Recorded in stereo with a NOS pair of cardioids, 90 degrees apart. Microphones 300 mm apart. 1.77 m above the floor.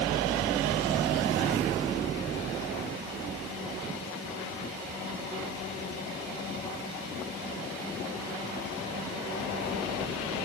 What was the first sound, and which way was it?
Only background noise.